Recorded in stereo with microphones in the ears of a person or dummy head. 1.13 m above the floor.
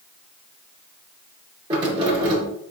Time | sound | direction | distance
1.7 | keys jangling | 30° right (ahead or behind) | 1.7 m